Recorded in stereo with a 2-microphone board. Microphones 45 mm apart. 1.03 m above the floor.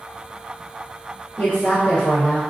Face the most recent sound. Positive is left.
turn(degrees=40)  # may be behind; listen again after turning